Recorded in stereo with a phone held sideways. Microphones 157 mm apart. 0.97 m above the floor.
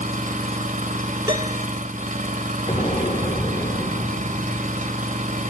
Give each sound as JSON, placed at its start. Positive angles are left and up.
{"t": 0.0, "sound": "an engine running", "side_deg": -60, "distance_m": 1.3}
{"t": 1.3, "sound": "a piano", "side_deg": -30, "distance_m": 4.5}
{"t": 2.7, "sound": "an explosion", "side_deg": 45, "distance_m": 3.0}